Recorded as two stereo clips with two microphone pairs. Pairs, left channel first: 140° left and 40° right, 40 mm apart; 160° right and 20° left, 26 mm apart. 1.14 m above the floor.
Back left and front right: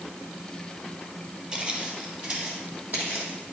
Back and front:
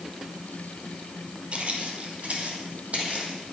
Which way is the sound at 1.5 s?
20° left.